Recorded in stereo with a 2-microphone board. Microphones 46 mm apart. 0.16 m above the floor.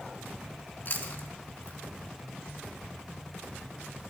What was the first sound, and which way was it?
Chewing, 45° left (ahead or behind).